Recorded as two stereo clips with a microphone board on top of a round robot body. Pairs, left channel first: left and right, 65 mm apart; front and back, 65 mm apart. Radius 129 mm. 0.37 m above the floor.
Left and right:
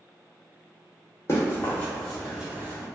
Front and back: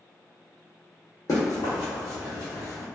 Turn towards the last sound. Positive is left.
turn(degrees=-50)